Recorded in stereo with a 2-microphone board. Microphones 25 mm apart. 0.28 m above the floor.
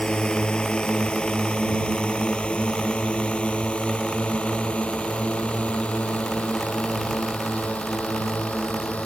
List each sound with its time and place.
0.0 s a drone: 40° left (ahead or behind); by 9.1 s 65° left (ahead or behind)